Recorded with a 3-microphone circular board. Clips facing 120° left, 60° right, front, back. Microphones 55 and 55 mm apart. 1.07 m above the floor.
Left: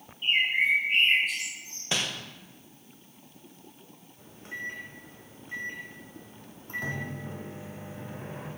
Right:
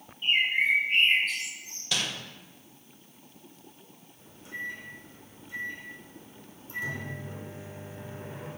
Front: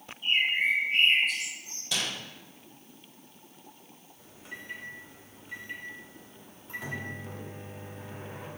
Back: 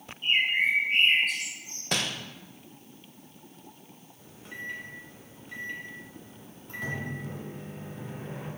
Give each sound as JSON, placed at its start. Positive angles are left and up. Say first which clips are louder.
{"t": 0.2, "sound": "a bird", "louder": "even, back 1 dB", "azimuth_deg": -160, "distance_m": 2.0}
{"t": 1.9, "sound": "crumpling", "louder": "left 1 dB, back 3 dB", "azimuth_deg": 170, "distance_m": 0.7}
{"t": 4.2, "sound": "a microwave", "louder": "even, back 4 dB", "azimuth_deg": 85, "distance_m": 1.1}